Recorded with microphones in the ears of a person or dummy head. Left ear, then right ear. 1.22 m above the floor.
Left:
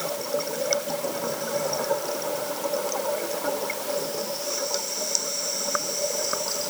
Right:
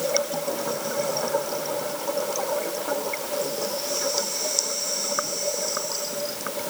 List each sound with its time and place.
Only background noise.